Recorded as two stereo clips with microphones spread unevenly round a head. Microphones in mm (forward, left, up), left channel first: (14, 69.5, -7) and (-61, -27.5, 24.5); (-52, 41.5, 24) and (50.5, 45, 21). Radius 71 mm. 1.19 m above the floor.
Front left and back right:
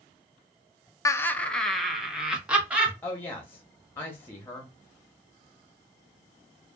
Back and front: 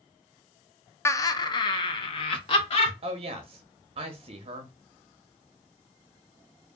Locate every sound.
1.1 s laughter: 115° left, 0.5 m; by 2.9 s 150° left, 1.6 m
3.0 s a woman speaking: 10° right, 0.6 m